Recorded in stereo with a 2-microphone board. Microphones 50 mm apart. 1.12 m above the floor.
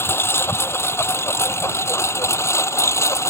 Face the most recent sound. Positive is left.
turn(degrees=70)  # may be behind; listen again after turning